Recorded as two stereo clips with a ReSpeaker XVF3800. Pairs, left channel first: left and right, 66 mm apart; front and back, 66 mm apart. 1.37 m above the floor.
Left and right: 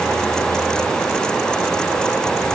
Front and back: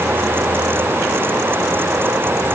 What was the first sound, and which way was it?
Only background noise.